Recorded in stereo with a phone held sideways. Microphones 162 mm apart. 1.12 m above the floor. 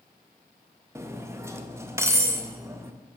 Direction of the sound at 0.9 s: 15° right (ahead or behind).